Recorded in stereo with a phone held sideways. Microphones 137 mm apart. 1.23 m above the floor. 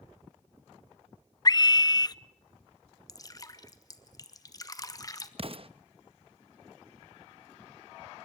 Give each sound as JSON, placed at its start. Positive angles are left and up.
{"t": 1.4, "sound": "a scream", "side_deg": 30, "distance_m": 0.5}
{"t": 3.1, "sound": "dripping", "side_deg": 30, "distance_m": 1.3}
{"t": 5.4, "sound": "an explosion", "side_deg": -45, "distance_m": 0.7}